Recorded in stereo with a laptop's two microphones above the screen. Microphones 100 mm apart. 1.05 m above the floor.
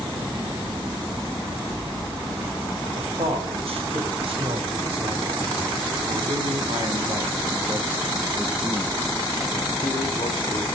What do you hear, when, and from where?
3.0 s a man speaking: 75° right (ahead or behind), 5 m; by 10.7 s 70° left (ahead or behind), 2.5 m